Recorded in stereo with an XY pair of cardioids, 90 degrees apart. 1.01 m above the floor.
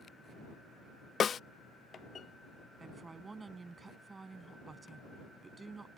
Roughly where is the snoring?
I don't hear snoring.